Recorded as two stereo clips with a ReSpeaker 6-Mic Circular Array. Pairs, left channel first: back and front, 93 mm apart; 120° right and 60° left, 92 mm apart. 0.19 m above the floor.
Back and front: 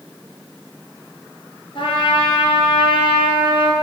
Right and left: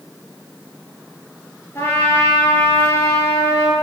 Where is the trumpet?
175° right, 1.2 m.